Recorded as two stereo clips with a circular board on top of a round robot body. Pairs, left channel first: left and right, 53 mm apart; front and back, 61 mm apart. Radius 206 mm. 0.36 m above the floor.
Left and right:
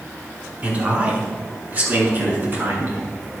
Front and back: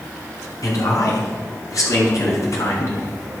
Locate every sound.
0.6 s a man speaking: 30° right, 6 m; by 3.0 s 40° right, 6 m